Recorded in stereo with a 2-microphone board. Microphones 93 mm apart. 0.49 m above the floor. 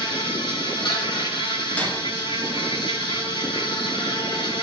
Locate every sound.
0.0 s an insect: 65° left (ahead or behind), 4 m
1.8 s breaking glass: 15° left (ahead or behind), 4 m